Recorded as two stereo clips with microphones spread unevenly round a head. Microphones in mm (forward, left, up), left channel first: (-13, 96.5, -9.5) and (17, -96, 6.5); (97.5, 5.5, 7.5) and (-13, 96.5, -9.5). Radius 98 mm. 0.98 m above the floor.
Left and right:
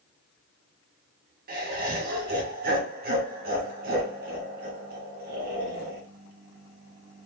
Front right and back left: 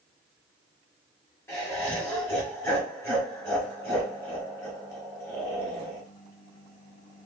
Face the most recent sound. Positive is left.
turn(degrees=-120)